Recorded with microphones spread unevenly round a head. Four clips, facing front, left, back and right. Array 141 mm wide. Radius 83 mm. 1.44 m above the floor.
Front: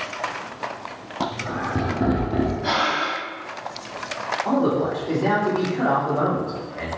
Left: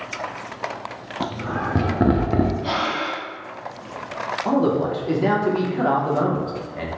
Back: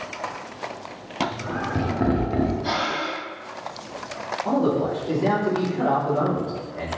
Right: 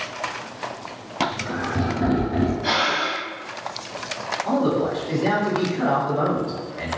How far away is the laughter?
About 0.7 m.